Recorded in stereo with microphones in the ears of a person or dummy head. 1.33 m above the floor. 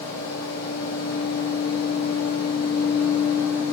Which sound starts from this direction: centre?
A fan, at 0.0 s.